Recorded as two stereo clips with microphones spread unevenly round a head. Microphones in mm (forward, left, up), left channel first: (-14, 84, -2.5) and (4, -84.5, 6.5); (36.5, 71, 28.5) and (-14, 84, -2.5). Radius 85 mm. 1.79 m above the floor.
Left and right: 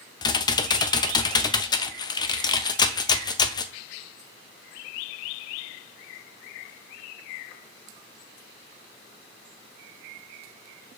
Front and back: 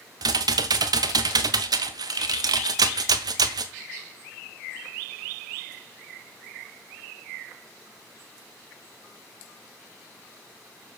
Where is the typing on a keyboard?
165° left, 0.8 m.